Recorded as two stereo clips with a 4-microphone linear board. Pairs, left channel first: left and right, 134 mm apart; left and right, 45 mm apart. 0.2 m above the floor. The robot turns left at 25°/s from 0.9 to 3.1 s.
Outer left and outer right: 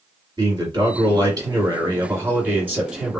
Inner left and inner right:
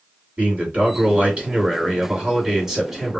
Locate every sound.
0.4 s a man speaking: 115° right, 1.7 m; by 3.2 s 170° right, 1.7 m